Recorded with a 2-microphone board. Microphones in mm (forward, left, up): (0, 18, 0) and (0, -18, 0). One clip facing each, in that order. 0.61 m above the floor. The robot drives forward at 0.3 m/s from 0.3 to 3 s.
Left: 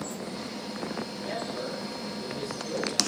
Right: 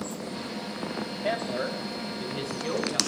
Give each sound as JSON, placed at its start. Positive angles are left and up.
{"t": 1.2, "sound": "a man speaking", "side_deg": -65, "distance_m": 3.0}